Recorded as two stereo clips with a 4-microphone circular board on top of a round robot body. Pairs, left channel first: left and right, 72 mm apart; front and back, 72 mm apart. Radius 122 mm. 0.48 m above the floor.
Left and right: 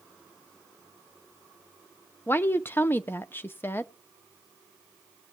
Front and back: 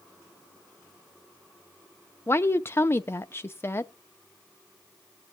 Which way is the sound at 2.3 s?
40° left.